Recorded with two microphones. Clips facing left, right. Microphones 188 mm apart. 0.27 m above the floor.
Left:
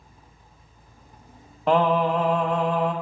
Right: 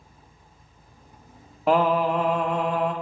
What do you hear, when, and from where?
1.7 s singing: 5° right (ahead or behind), 0.9 m